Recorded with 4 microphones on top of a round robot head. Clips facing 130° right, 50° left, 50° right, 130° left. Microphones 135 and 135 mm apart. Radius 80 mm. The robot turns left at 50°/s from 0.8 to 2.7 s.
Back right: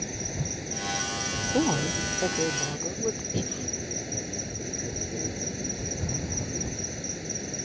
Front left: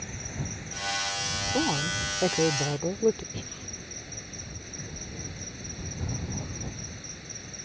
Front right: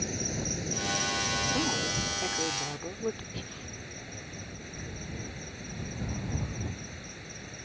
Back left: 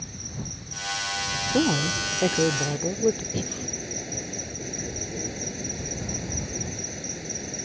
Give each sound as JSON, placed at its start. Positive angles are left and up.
{"t": 0.0, "sound": "an insect", "azimuth_deg": -80}
{"t": 1.5, "sound": "a woman speaking", "azimuth_deg": 160}
{"t": 3.3, "sound": "breathing", "azimuth_deg": 180}